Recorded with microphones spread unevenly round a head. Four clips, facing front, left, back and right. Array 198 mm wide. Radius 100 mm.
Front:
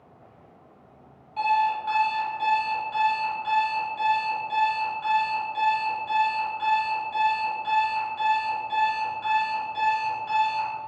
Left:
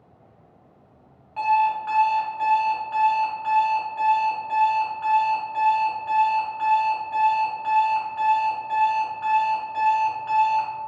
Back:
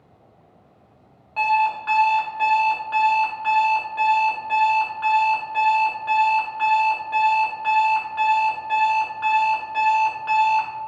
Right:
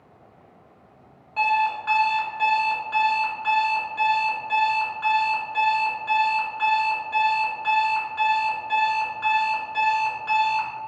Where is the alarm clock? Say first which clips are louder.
Left 2 dB, back 3 dB; 160° right, 2.5 m.